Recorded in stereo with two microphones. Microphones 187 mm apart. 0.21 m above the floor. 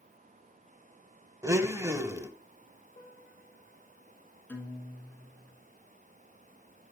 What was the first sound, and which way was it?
A blender, 15° right (ahead or behind).